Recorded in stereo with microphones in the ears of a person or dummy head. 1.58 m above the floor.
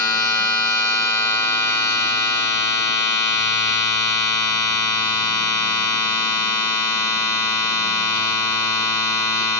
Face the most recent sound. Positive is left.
turn(degrees=15)  # may be behind; listen again after turning